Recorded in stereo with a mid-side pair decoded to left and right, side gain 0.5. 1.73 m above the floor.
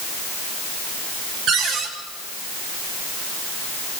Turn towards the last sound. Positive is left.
turn(degrees=-65)